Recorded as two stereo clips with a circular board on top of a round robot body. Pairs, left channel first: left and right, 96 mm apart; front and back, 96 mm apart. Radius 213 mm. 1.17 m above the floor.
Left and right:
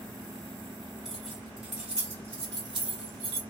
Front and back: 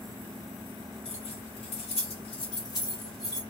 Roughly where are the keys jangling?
Ahead.